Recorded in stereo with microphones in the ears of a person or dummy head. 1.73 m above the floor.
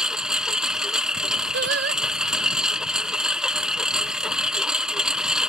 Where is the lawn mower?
5° left (ahead or behind).